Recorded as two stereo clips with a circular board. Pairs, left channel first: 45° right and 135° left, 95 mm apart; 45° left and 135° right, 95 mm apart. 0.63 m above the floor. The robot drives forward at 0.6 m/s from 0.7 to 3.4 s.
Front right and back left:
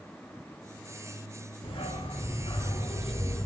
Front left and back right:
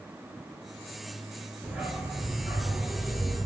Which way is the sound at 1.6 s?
55° right.